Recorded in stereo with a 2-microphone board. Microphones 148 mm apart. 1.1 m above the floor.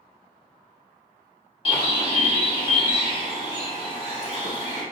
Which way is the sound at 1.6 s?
35° left (ahead or behind).